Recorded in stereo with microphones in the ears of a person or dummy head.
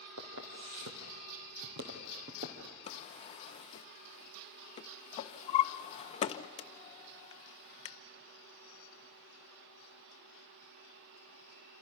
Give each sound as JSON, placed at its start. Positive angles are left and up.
{"t": 0.2, "sound": "footsteps", "side_deg": -70, "distance_m": 3.0}
{"t": 2.9, "sound": "a drawer", "side_deg": 35, "distance_m": 0.7}